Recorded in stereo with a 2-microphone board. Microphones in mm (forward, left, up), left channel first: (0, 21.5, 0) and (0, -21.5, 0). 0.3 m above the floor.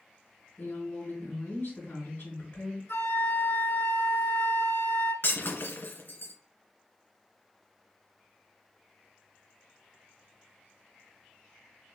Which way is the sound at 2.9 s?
80° left.